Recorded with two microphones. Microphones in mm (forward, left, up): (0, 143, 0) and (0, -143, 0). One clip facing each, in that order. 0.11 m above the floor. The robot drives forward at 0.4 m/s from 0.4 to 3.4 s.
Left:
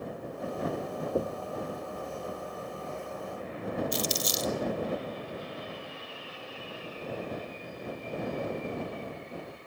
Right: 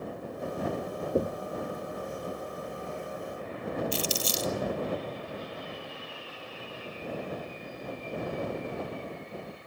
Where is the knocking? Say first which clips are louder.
Right 3 dB; 20° right (ahead or behind), 0.8 m.